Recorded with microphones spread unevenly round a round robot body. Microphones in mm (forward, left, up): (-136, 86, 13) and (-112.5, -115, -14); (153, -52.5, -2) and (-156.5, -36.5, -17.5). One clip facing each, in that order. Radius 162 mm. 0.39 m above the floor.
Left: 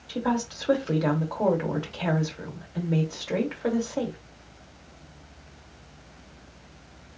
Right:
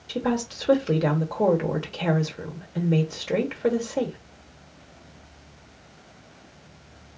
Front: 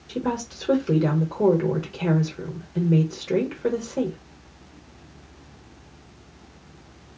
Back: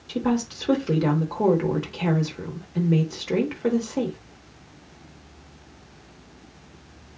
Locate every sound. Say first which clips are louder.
0.1 s a woman speaking: right 2 dB, back 4 dB; 115° right, 0.9 m